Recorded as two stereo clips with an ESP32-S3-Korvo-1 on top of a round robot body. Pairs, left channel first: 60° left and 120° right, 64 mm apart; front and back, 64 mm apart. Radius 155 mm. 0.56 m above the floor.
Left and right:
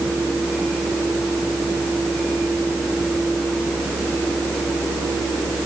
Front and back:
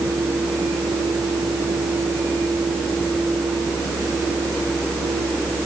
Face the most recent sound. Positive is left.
No sound to turn to.